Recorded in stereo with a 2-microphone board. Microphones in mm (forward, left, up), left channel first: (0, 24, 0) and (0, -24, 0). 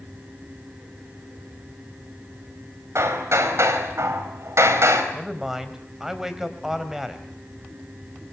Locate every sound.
3.0 s hammering: 80° right, 4 m
5.1 s a man speaking: 10° right (ahead or behind), 3.5 m